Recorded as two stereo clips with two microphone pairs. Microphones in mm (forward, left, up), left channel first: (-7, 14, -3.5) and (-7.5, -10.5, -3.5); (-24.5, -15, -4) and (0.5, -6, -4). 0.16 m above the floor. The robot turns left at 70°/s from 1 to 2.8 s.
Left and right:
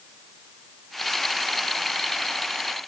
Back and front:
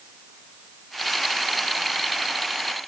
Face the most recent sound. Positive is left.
No sound to turn to.